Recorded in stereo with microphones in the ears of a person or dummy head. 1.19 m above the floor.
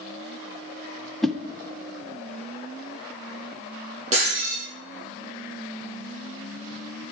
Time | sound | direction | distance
1.2 | a whoosh | 5° left (ahead or behind) | 0.5 m
4.1 | breaking glass | 45° right (ahead or behind) | 6 m